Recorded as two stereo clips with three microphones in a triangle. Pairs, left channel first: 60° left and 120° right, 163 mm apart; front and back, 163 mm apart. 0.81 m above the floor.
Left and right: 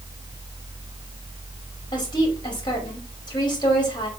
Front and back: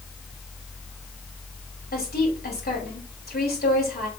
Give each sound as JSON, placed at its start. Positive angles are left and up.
{"t": 1.9, "sound": "a woman speaking", "azimuth_deg": 0, "distance_m": 5.0}